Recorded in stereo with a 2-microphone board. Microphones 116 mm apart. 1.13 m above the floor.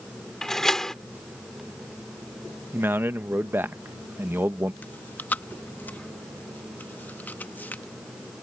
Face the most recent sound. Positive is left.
turn(degrees=15)  # may be behind; listen again after turning